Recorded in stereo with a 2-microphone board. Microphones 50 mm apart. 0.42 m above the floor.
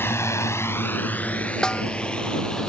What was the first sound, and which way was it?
A drone, 50° left (ahead or behind).